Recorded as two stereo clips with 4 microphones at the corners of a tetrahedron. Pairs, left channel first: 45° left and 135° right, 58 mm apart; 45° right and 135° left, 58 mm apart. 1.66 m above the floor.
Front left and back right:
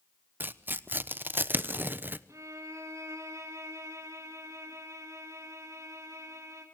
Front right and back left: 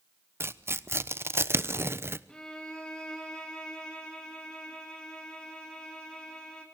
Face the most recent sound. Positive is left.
turn(degrees=-120)